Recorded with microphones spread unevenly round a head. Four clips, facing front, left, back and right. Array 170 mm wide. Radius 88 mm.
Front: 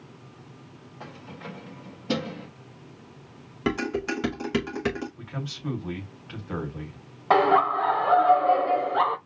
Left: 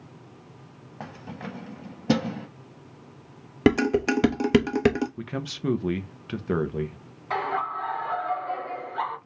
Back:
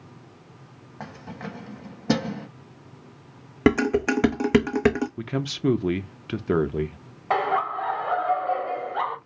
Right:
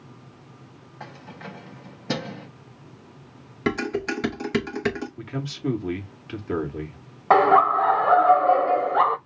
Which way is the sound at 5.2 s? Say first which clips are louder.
Right 1 dB, back 9 dB; 175° left.